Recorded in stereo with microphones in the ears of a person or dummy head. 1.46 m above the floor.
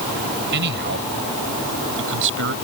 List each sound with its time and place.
0.5 s a man speaking: 55° right (ahead or behind); by 2.5 s 65° right (ahead or behind)